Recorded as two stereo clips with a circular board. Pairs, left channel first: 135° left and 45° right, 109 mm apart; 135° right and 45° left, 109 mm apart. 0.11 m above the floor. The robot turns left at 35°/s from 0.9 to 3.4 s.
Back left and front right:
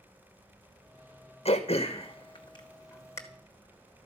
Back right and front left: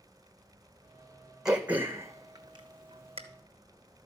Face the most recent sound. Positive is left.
turn(degrees=60)